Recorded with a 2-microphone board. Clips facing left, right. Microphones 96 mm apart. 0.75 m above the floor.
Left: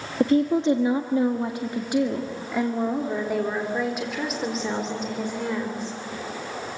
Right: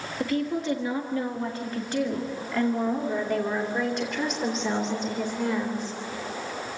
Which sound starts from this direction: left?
A woman speaking, at 0.2 s.